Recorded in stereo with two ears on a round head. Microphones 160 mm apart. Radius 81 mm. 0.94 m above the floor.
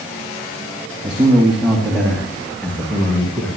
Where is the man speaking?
10° right (ahead or behind), 5 m; by 3.5 s 10° left (ahead or behind), 6.5 m.